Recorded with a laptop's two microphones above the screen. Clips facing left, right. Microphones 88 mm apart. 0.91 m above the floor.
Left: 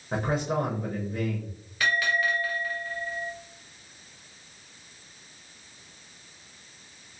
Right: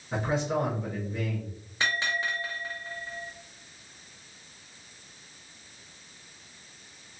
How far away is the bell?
About 0.7 m.